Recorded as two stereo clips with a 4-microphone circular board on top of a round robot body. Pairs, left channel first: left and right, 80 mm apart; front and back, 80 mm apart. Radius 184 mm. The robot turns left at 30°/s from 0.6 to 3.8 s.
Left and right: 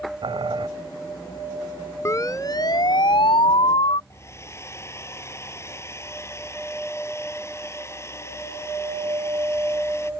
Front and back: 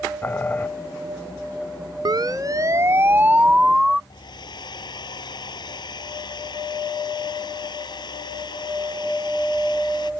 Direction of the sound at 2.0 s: 145° left.